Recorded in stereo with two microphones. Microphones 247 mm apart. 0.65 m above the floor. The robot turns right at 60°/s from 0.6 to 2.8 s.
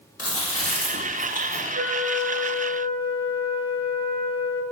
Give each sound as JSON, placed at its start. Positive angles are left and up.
{"t": 0.2, "sound": "chewing", "azimuth_deg": 100, "distance_m": 0.9}
{"t": 1.8, "sound": "a flute", "azimuth_deg": -100, "distance_m": 0.5}